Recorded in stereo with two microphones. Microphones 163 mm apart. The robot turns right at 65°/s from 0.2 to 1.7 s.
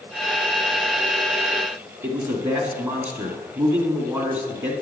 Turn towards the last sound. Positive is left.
turn(degrees=-10)  # may be behind; listen again after turning